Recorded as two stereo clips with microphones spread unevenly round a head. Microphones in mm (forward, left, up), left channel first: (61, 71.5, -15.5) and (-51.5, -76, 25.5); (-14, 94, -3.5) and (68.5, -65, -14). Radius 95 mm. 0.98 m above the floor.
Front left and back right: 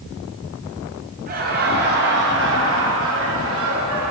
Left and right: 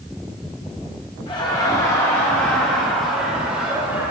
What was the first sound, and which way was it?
Laughter, 175° right.